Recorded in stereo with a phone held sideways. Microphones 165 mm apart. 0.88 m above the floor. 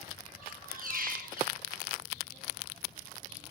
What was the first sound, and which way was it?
A squeak, 55° right (ahead or behind).